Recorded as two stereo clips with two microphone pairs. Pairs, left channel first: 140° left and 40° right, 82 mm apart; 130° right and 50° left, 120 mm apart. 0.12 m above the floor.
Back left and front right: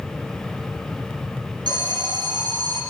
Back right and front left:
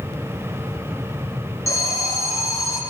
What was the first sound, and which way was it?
An alarm, 65° right.